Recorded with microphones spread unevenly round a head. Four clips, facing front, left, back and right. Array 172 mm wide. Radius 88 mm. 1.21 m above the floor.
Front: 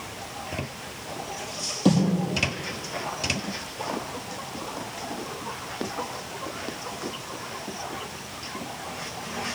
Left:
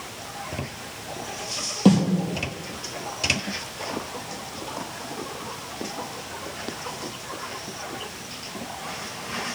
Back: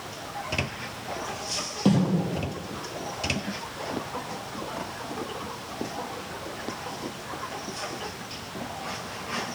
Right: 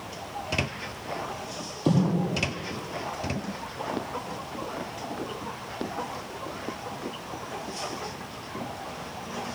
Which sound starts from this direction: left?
A snare drum, at 1.9 s.